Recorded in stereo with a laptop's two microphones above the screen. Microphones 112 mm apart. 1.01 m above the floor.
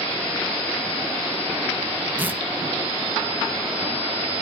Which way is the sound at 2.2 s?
15° right (ahead or behind).